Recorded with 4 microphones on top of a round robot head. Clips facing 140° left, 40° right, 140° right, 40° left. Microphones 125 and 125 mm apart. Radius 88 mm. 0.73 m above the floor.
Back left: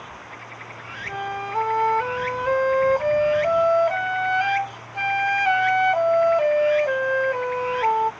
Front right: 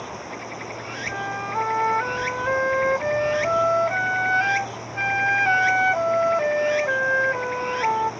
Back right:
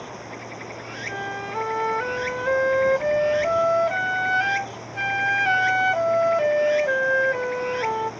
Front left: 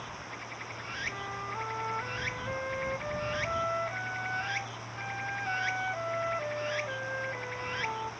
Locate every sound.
0.0 s running water: 95° right
1.1 s a flute: 150° right